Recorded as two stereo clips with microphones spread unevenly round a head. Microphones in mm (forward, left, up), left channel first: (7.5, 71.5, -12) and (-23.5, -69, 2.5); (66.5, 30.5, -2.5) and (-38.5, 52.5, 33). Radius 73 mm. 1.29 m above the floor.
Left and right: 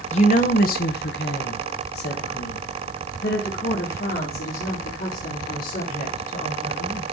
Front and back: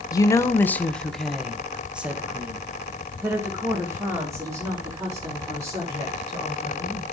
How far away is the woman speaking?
About 1.0 m.